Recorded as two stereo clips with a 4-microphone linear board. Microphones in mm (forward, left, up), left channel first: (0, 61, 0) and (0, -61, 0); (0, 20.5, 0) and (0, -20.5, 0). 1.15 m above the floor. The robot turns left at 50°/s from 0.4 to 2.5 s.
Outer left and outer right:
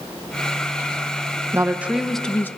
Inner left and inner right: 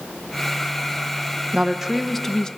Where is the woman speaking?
155° right, 1.0 m; by 2.5 s 160° left, 1.0 m.